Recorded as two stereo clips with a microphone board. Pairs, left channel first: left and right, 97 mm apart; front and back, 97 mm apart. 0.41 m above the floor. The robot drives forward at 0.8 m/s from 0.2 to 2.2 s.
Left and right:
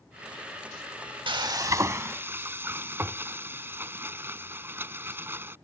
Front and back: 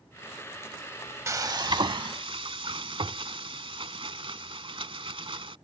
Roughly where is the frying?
Behind right.